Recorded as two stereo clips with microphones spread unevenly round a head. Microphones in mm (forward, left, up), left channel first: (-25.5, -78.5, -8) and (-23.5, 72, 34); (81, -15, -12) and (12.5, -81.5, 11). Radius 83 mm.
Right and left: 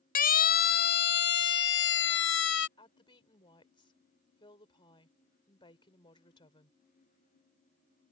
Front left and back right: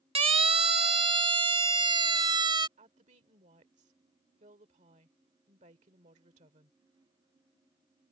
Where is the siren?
125° right; by 2.7 s 95° right.